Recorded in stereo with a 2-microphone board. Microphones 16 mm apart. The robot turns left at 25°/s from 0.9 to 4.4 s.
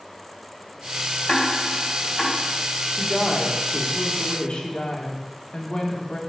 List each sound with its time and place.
1.3 s ticking: 60° left (ahead or behind), 2.5 m; by 2.4 s 35° left (ahead or behind), 2.5 m
2.9 s a woman speaking: 160° left, 2.5 m; by 6.2 s 125° left, 2.5 m